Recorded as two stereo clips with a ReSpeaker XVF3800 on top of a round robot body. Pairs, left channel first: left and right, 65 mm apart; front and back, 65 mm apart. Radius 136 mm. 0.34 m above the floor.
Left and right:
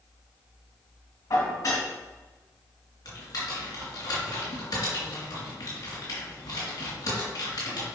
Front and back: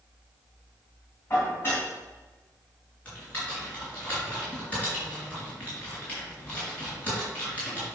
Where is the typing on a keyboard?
70° left, 3.5 m.